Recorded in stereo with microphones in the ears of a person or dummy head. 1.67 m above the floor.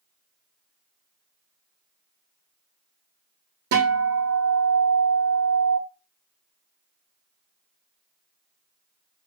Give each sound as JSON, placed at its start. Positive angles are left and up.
{"t": 3.7, "sound": "a guitar", "side_deg": -70, "distance_m": 0.8}